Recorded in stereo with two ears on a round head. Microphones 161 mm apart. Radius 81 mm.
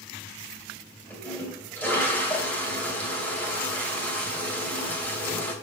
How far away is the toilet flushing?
About 2 m.